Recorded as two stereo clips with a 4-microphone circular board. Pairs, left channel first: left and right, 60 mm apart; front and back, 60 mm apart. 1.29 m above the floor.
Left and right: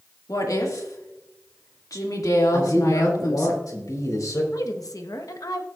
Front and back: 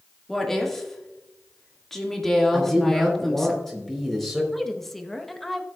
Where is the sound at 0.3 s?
85° left, 2 m.